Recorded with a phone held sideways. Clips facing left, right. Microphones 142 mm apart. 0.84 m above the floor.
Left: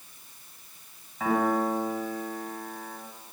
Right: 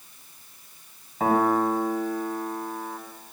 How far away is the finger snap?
I don't hear a finger snap.